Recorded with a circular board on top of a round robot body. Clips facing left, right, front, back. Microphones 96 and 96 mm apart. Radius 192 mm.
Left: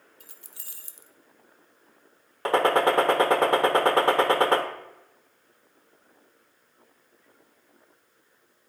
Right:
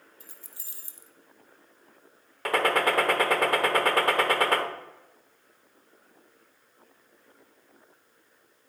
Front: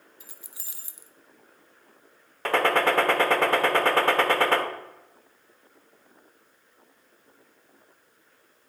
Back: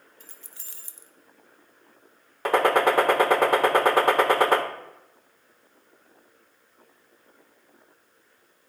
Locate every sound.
0.2 s keys jangling: 80° left, 0.8 m
2.5 s a gunshot: 120° left, 1.1 m